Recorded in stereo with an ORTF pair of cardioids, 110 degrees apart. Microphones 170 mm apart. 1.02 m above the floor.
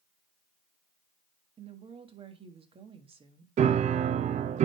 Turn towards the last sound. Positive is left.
turn(degrees=-45)